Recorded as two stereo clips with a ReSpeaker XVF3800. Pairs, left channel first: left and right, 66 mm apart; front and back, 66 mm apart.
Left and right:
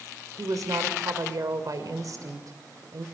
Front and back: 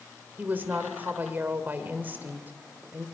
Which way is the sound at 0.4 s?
120° right.